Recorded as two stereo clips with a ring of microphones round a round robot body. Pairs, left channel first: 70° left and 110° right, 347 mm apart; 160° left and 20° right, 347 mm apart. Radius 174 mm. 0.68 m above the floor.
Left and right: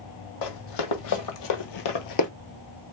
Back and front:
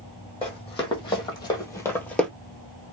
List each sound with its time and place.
0.4 s running footsteps: 85° left, 1.7 m; by 2.3 s 70° left, 0.8 m